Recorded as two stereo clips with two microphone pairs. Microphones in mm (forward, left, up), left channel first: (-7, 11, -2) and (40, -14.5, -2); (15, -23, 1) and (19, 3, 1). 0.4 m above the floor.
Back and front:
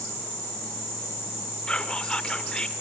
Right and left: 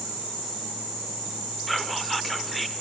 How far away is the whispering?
About 0.9 m.